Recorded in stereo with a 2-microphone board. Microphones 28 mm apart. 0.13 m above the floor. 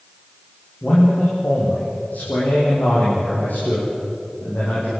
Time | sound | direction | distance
0.8 | a man speaking | 75° left (ahead or behind) | 7 m